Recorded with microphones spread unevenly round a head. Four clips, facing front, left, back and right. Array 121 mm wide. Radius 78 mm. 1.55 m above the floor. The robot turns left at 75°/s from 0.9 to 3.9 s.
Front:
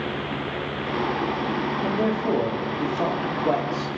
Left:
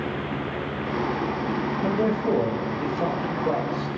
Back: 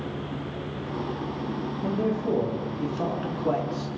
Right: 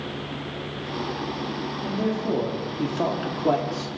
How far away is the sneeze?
No sneeze in this recording.